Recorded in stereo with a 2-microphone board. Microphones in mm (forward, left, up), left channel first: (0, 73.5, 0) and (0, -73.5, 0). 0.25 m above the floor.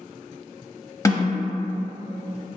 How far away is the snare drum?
About 0.6 m.